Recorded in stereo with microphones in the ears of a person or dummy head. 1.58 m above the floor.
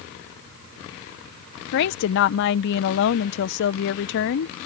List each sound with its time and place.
1.7 s a woman speaking: 65° left (ahead or behind)